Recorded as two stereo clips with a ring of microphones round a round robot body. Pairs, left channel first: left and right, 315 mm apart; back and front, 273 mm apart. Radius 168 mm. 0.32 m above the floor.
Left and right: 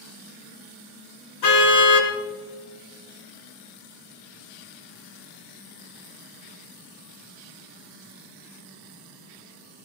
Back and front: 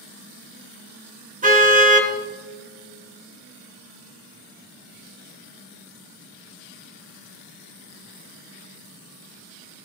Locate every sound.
1.4 s a car horn: 60° left, 2.5 m